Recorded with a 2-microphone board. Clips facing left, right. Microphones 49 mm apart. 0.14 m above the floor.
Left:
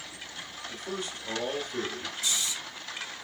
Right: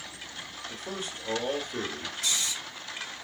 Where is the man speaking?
25° right (ahead or behind), 2.5 m.